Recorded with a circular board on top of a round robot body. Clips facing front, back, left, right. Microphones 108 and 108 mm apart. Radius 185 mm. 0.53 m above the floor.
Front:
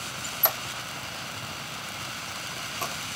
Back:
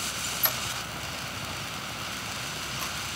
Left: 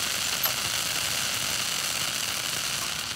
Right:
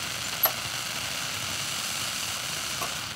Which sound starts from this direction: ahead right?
A squeak, at 0.2 s.